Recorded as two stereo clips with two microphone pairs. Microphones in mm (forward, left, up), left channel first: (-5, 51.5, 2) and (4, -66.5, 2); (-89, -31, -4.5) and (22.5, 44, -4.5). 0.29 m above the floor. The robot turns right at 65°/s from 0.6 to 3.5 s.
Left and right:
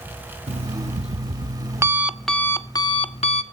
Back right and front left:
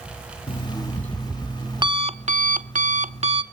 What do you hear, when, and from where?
0.5 s an alarm clock: 100° right, 0.8 m; by 3.4 s 85° left, 0.8 m